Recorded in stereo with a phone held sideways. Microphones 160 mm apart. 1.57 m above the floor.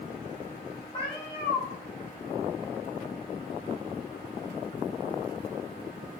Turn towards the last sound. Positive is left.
turn(degrees=30)  # may be behind; listen again after turning